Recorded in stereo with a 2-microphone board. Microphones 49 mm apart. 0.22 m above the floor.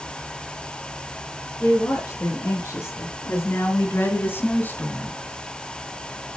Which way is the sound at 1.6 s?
75° left (ahead or behind).